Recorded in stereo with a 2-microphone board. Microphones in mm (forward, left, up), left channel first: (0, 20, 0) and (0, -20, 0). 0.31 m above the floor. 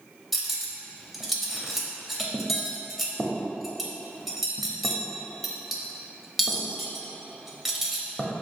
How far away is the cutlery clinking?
About 0.6 m.